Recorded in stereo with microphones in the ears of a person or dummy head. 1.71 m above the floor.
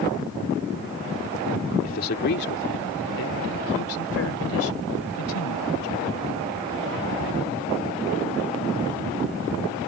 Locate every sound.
1.8 s a man speaking: 45° left (ahead or behind); by 6.1 s 85° left